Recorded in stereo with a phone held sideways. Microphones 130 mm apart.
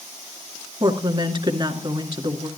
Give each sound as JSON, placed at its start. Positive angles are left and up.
{"t": 0.8, "sound": "a woman speaking", "side_deg": -35, "distance_m": 2.0}